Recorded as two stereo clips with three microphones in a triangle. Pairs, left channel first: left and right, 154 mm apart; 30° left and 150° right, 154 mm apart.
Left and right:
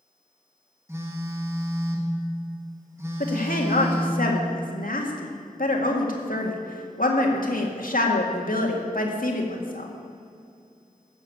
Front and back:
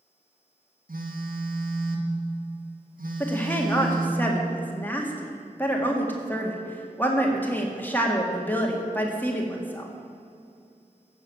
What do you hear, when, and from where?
0.9 s a phone buzzing: 165° right, 1.9 m
3.2 s a woman speaking: 105° left, 2 m